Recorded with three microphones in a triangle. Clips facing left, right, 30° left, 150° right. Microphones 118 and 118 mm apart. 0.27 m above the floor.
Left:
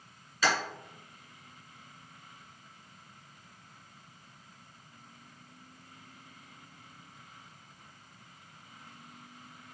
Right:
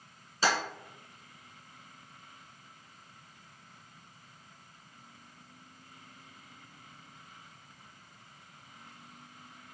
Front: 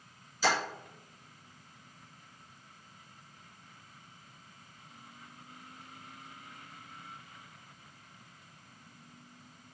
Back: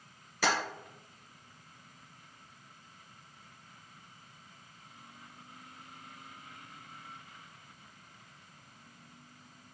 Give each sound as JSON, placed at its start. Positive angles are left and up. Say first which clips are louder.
{"t": 0.4, "sound": "tapping", "louder": "even, front 1 dB", "azimuth_deg": -150, "distance_m": 1.3}